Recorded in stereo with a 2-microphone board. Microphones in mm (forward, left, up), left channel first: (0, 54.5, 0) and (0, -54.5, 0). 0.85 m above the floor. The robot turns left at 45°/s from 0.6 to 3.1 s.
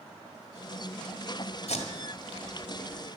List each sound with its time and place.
1.7 s tape being pulled: 70° left (ahead or behind), 2.0 m; by 2.5 s 60° left (ahead or behind), 2.0 m